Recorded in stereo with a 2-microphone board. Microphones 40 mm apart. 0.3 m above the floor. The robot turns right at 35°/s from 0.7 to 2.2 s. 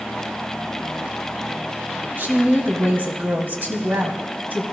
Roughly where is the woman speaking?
Right.